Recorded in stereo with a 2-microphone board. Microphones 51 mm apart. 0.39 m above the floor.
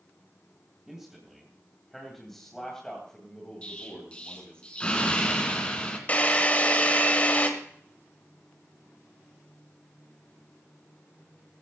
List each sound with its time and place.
0.9 s a man speaking: 10° right (ahead or behind), 2.5 m; by 4.6 s 25° left (ahead or behind), 3 m
3.6 s an explosion: 20° left (ahead or behind), 3 m
6.1 s a drill: 30° left (ahead or behind), 1.9 m